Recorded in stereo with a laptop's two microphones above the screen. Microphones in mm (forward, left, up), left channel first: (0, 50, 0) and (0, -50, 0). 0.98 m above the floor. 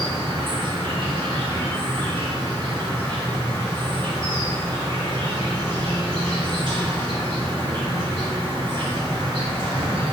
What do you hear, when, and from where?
0.0 s an insect: 55° right (ahead or behind), 1.9 m